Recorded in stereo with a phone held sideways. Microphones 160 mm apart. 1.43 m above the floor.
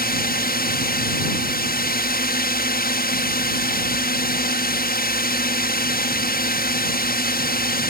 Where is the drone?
65° left (ahead or behind).